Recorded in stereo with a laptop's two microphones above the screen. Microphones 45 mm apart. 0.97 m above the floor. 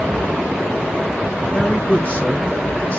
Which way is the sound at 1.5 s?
25° left (ahead or behind).